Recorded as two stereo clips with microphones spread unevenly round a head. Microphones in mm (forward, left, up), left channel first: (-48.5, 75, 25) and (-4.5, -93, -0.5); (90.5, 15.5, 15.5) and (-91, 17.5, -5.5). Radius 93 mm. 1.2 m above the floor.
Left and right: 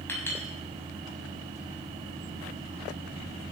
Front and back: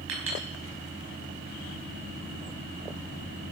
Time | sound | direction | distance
0.1 | a clink | straight behind | 6 m